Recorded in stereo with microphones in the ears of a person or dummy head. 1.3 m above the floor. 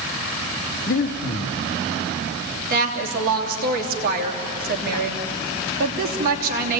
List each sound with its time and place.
0.9 s breathing: 50° left (ahead or behind), 1.1 m
2.7 s a woman speaking: 50° right (ahead or behind), 3 m